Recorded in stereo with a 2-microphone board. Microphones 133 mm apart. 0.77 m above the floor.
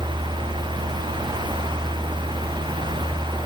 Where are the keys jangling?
I don't hear keys jangling.